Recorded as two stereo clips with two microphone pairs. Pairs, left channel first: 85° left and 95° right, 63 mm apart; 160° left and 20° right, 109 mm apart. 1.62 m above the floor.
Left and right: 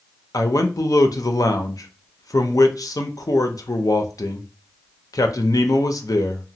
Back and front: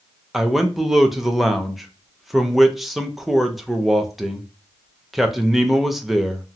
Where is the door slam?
I don't hear a door slam.